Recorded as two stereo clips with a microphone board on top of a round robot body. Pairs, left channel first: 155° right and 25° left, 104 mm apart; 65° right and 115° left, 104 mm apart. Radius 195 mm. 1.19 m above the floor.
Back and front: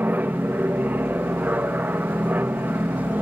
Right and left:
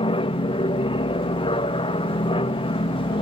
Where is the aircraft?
50° right.